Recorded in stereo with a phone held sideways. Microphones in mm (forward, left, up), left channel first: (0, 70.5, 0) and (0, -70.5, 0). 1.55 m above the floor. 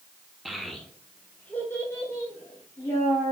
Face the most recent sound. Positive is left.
turn(degrees=20)  # may be behind; listen again after turning